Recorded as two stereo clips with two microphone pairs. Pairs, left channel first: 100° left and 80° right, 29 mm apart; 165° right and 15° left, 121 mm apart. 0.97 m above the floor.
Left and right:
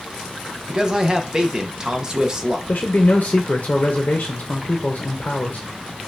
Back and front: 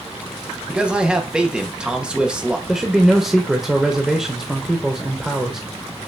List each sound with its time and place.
0.7 s a man speaking: 60° right, 0.6 m
2.7 s a man speaking: 100° left, 0.6 m